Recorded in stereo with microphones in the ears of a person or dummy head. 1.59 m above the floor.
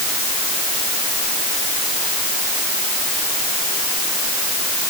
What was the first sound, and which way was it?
Only background noise.